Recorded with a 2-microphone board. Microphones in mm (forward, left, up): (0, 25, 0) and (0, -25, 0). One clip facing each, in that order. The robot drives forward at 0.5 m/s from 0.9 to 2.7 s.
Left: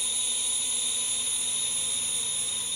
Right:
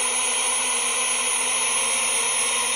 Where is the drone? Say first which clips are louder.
Right 11 dB; 55° right (ahead or behind); by 2.8 s 60° right (ahead or behind).